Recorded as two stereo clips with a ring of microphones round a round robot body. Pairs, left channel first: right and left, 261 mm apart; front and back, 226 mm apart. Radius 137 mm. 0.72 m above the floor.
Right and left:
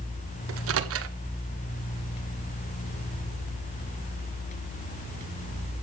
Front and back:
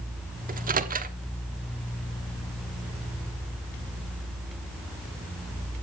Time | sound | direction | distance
0.5 | a microwave | 125° left | 1.3 m